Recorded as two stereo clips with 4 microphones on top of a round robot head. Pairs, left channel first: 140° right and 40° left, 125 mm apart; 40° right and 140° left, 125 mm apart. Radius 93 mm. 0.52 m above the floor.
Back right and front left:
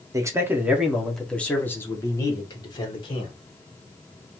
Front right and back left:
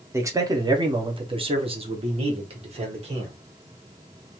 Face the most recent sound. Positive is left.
turn(degrees=170)